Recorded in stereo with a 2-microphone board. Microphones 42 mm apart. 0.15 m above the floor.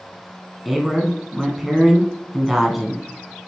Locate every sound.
0.7 s a man speaking: 5° right (ahead or behind), 1.1 m